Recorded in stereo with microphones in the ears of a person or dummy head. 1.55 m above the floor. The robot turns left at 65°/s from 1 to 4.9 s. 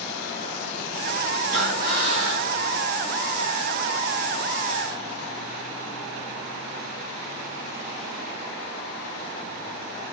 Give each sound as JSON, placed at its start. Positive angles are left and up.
{"t": 1.5, "sound": "breathing", "azimuth_deg": -95, "distance_m": 1.5}